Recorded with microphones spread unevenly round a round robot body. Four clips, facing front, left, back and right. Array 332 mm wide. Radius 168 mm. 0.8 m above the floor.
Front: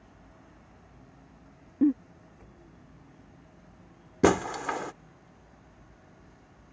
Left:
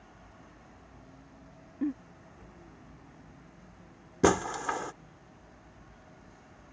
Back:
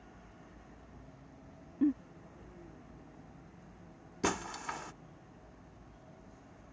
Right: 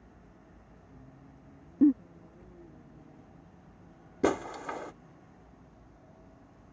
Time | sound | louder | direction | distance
1.8 | a giggle | right 10 dB, front 6 dB | 50° right | ?
4.2 | breaking glass | left 4 dB, front 12 dB | 35° left | ?